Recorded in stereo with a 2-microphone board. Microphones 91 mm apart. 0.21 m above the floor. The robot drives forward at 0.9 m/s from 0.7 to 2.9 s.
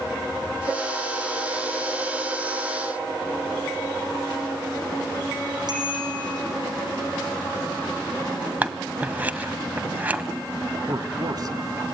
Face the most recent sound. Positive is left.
turn(degrees=-45)  # may be behind; listen again after turning